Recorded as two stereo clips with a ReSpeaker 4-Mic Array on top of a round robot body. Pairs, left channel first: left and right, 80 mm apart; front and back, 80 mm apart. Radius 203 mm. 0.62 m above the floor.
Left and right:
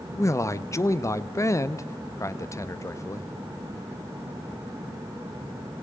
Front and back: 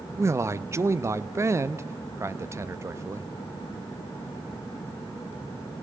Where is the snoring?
I don't hear snoring.